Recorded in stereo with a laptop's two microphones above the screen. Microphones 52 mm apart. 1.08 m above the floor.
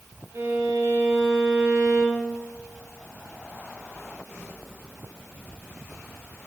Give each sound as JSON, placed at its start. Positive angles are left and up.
{"t": 0.3, "sound": "a violin", "side_deg": -50, "distance_m": 1.5}